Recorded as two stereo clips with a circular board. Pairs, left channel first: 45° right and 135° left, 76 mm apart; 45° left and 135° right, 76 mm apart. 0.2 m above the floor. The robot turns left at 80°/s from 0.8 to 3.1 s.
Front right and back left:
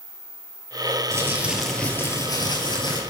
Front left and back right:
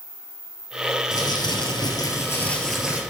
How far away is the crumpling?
About 2.5 m.